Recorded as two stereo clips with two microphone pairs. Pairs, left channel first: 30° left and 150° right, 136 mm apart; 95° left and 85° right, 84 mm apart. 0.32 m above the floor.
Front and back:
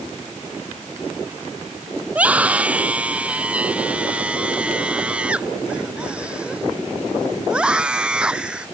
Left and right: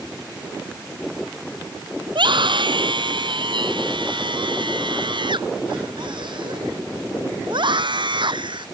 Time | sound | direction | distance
2.1 | a scream | 70° right | ?